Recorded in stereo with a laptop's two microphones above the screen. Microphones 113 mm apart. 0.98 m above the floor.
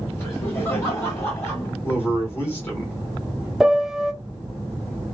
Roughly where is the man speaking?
Left.